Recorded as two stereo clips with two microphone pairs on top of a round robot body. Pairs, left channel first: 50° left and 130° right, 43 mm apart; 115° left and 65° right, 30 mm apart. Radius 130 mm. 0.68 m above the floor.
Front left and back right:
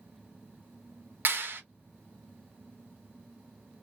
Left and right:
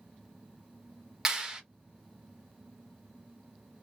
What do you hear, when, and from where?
1.2 s a clap: 135° right, 1.2 m